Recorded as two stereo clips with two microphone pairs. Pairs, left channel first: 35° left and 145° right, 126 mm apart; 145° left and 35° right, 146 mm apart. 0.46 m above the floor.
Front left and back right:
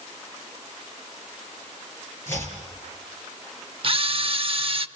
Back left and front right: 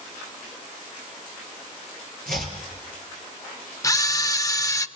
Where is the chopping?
35° right, 5.5 m.